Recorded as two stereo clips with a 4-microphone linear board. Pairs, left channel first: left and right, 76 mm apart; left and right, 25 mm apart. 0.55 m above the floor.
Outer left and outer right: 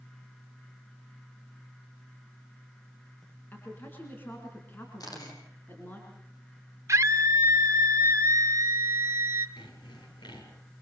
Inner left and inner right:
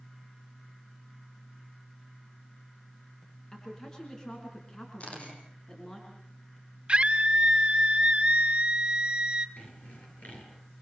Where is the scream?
40° right (ahead or behind), 2.0 m.